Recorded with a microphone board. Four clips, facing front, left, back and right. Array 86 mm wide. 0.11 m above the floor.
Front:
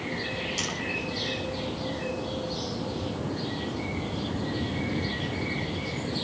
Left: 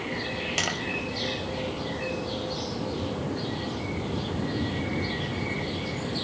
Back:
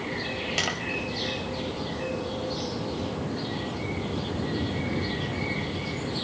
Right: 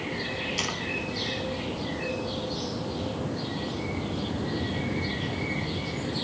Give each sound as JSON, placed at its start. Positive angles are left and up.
{"t": 0.6, "sound": "tapping", "azimuth_deg": 135, "distance_m": 5.0}